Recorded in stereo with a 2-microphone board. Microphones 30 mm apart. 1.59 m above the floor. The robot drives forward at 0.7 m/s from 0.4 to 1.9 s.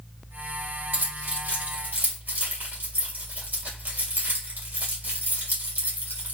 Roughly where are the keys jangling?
Right.